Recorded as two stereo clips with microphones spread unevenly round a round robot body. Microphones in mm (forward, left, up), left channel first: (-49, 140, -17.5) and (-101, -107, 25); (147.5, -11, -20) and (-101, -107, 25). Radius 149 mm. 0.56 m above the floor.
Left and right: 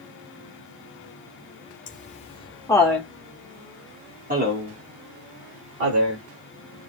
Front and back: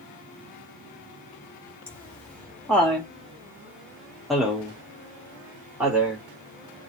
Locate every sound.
1.9 s laughter: 95° left, 1.2 m; by 6.2 s 65° right, 1.8 m